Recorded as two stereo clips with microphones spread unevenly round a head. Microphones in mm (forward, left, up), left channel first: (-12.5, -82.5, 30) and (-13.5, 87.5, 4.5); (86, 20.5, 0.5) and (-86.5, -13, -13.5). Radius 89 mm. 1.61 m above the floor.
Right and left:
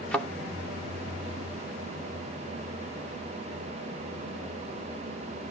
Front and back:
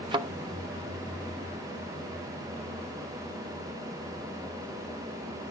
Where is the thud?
145° right, 0.9 m.